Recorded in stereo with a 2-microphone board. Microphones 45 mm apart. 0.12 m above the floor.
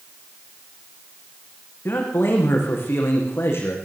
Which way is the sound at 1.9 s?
60° left (ahead or behind).